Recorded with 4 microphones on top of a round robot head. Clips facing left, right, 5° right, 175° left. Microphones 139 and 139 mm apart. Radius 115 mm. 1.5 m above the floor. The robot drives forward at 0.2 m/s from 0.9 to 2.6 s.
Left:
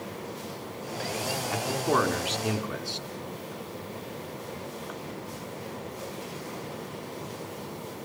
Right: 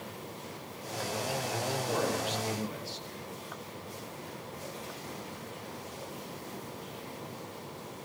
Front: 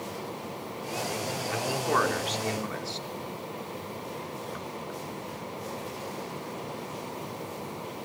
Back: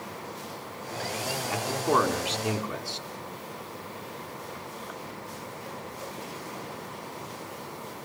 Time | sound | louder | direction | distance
1.5 | a man speaking | left 9 dB, back 2 dB | 115° left | 3.5 m